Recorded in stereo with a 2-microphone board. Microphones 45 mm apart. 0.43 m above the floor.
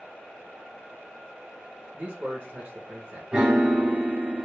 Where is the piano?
25° right (ahead or behind), 1.8 m.